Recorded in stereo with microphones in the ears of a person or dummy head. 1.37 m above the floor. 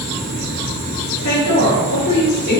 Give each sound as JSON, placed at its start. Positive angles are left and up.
{"t": 1.2, "sound": "a woman speaking", "side_deg": 85, "distance_m": 2.5}